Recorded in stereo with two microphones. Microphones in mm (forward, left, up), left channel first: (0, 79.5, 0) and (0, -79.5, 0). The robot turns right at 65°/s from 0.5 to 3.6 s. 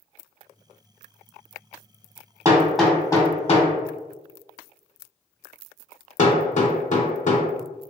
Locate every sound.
2.5 s hammering: 20° right (ahead or behind), 0.7 m; by 7.4 s 50° left (ahead or behind), 0.7 m